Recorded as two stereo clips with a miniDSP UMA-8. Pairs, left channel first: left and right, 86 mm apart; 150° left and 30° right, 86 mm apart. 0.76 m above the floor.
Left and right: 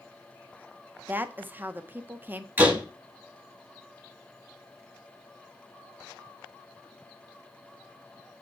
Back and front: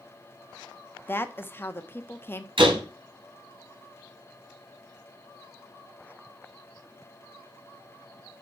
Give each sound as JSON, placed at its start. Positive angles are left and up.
{"t": 1.1, "sound": "a woman speaking", "azimuth_deg": -150, "distance_m": 1.1}
{"t": 2.6, "sound": "a door slam", "azimuth_deg": -20, "distance_m": 5.0}